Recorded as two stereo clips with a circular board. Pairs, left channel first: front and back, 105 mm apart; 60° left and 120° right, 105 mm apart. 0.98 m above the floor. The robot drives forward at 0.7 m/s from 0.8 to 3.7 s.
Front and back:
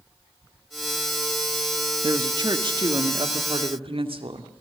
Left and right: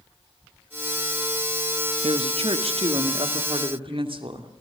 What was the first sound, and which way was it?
A woman speaking, 130° right.